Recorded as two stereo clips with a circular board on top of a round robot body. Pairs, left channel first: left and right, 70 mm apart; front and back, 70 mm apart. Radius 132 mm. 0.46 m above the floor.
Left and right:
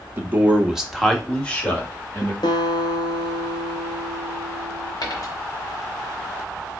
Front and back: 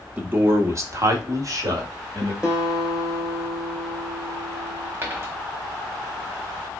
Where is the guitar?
100° left, 1.0 m.